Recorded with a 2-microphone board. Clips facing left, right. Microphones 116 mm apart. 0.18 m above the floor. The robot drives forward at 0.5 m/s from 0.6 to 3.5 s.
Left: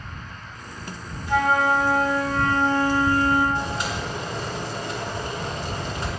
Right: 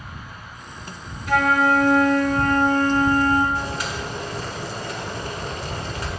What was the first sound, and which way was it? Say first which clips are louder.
A flute: right 2 dB; 75° right (ahead or behind).